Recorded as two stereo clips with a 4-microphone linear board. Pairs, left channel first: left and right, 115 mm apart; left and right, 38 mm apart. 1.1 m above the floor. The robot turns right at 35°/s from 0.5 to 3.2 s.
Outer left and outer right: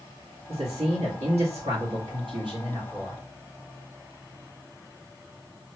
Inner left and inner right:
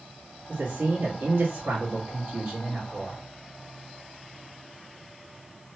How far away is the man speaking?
About 1.5 m.